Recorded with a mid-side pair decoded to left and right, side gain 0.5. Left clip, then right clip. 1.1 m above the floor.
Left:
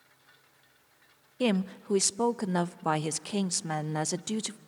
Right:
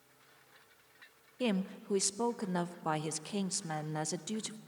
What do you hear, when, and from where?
1.4 s a woman speaking: 35° left, 0.6 m